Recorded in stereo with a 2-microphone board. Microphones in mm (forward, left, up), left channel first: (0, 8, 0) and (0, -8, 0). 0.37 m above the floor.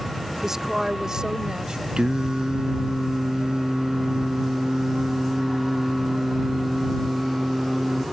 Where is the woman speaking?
30° right (ahead or behind); by 1.9 s 60° right (ahead or behind).